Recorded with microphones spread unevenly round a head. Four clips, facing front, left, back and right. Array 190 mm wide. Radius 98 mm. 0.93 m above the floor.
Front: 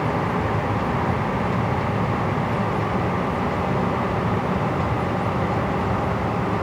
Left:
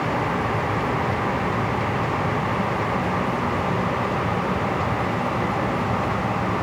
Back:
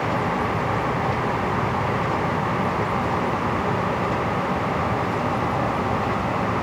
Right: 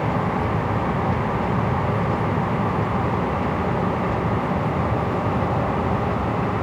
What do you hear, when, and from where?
Only background noise.